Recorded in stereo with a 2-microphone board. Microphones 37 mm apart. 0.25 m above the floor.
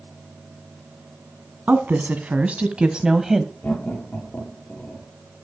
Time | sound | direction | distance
1.7 | a woman speaking | 55° right (ahead or behind) | 1.8 m
3.6 | laughter | 45° left (ahead or behind) | 6 m